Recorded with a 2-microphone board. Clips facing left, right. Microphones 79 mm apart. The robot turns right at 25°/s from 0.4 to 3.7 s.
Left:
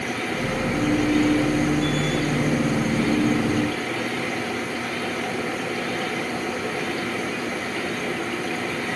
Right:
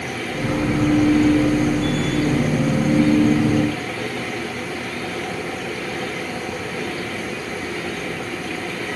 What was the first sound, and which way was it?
Only background noise.